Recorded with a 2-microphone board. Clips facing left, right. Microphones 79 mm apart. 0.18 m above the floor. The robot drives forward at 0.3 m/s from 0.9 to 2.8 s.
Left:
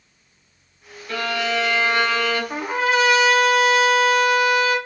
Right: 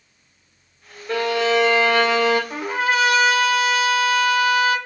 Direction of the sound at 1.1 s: 25° right (ahead or behind).